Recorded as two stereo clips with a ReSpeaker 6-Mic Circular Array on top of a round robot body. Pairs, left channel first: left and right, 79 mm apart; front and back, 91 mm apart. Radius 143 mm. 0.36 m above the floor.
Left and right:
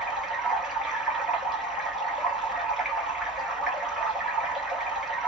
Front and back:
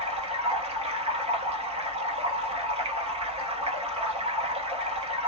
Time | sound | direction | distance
0.0 | running water | 175° right | 0.9 m